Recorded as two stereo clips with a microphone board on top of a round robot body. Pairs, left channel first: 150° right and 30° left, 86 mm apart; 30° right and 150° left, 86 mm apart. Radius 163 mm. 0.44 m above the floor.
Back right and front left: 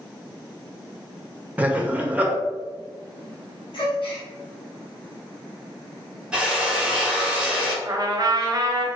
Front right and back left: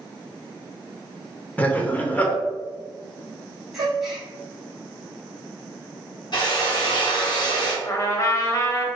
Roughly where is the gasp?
Behind right.